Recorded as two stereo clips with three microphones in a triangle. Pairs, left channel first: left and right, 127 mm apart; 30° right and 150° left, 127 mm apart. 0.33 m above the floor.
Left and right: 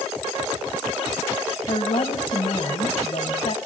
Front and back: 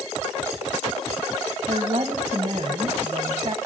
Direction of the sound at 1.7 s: 110° left.